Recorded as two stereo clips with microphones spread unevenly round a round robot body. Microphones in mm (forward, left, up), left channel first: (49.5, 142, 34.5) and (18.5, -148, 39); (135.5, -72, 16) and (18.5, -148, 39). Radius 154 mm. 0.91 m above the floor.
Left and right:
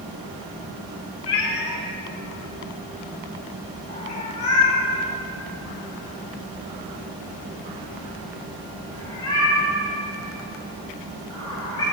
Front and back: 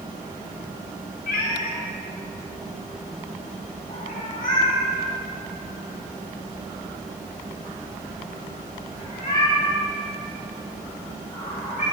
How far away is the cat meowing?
About 2 m.